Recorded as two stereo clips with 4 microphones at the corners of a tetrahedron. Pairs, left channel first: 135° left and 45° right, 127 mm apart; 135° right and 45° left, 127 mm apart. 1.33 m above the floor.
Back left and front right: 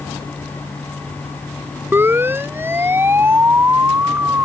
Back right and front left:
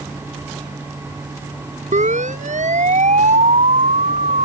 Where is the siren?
30° left; by 4.5 s 25° left.